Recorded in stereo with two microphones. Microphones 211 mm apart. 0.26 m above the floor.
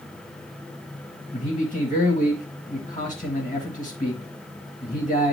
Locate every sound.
1.3 s a man speaking: 35° left (ahead or behind), 1.8 m